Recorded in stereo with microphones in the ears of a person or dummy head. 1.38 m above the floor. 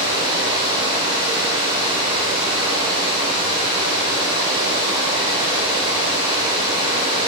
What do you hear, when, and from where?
0.0 s running water: 25° right (ahead or behind), 1.7 m